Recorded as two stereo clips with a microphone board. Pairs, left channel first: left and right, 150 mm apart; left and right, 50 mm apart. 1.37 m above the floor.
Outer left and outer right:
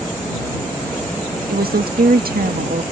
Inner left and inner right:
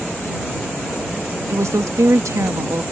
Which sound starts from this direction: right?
A woman speaking, at 1.5 s.